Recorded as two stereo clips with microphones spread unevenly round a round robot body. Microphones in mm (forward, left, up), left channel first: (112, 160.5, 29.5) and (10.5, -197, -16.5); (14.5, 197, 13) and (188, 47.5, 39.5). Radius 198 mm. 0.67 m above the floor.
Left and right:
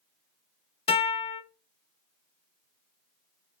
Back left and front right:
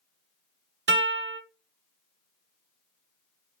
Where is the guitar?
5° right, 0.7 m.